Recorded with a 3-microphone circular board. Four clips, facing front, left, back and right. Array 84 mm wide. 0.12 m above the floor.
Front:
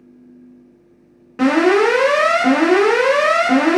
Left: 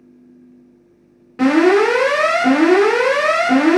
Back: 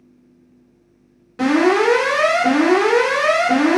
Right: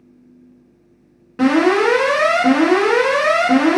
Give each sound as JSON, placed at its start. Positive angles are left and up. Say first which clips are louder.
{"t": 1.4, "sound": "an alarm", "louder": "left 2 dB, front 2 dB", "azimuth_deg": -15, "distance_m": 1.6}